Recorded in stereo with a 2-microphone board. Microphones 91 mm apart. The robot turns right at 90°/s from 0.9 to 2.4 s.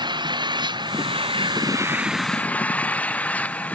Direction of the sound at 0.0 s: 120° right.